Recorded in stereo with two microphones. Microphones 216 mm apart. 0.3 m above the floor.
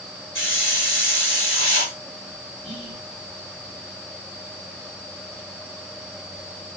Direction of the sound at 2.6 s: 30° right (ahead or behind).